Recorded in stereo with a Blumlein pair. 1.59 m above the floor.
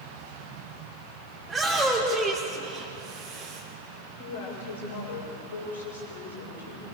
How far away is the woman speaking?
About 6.5 m.